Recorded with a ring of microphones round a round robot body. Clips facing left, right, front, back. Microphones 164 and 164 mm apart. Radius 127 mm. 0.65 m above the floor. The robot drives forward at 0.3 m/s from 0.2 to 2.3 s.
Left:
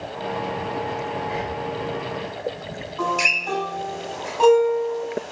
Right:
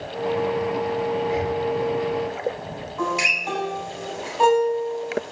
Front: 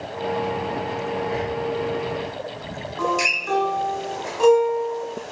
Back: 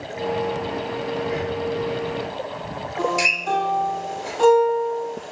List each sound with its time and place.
1.2 s breathing: 110° right, 0.9 m; by 1.6 s 120° right, 1.0 m
3.0 s a guitar: 170° right, 1.8 m